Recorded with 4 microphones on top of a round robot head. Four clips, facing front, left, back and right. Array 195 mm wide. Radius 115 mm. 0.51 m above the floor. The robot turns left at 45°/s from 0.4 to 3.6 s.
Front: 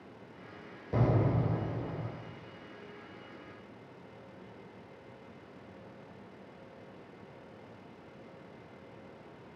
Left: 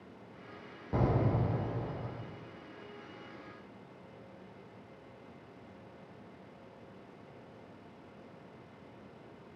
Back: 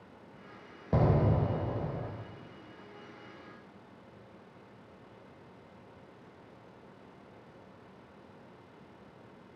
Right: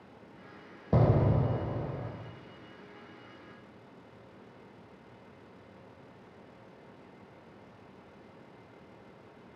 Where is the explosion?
110° right, 0.5 m; by 2.1 s 165° right, 0.5 m.